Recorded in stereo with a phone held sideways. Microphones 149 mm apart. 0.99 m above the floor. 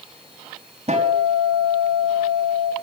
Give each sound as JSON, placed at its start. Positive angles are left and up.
{"t": 0.9, "sound": "a guitar", "side_deg": -50, "distance_m": 4.0}